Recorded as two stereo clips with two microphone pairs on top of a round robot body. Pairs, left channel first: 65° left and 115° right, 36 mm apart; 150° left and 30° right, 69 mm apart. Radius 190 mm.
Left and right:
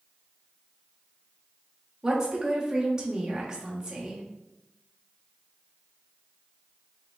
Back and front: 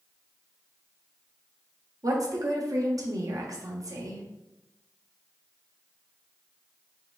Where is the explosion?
I don't hear an explosion.